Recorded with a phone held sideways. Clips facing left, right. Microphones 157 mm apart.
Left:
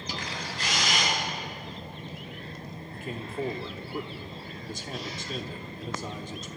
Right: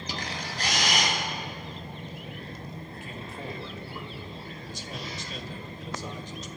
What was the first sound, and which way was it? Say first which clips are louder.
A camera shutter: right 1 dB; 40° right (ahead or behind).